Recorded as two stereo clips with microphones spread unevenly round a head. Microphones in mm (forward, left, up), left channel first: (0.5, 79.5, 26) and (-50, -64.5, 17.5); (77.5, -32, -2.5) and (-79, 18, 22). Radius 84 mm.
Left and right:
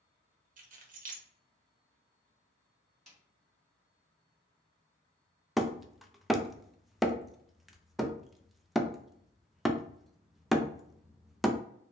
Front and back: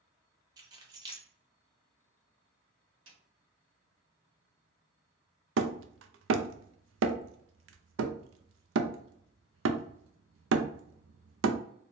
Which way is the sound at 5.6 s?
160° left.